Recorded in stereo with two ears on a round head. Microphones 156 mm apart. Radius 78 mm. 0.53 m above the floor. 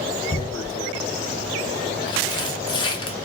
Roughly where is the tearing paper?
Left.